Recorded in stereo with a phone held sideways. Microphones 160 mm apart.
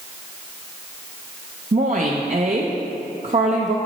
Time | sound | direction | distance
1.7 | a woman speaking | 55° right (ahead or behind) | 0.6 m